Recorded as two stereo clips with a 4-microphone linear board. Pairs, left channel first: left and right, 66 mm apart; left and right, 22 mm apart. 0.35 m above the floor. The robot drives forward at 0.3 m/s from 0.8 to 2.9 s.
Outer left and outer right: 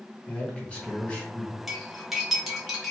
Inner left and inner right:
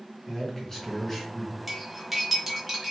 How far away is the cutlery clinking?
About 0.8 m.